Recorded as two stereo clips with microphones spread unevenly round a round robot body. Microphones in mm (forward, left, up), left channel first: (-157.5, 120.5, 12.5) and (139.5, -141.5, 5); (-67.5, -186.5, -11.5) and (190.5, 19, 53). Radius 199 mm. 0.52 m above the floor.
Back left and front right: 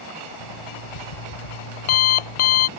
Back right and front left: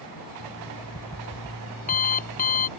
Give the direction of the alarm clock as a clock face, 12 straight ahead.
7 o'clock.